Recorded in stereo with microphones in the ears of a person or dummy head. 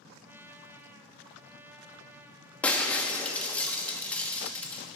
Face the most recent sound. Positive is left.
turn(degrees=10)  # may be behind; listen again after turning